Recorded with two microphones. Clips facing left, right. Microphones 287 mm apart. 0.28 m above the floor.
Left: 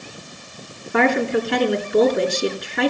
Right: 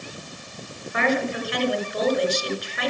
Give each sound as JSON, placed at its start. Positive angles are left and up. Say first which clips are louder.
{"t": 0.9, "sound": "a woman speaking", "louder": "left 6 dB", "side_deg": 60, "distance_m": 3.0}